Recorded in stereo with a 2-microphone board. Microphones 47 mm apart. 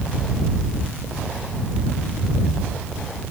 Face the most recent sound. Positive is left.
No sound to turn to.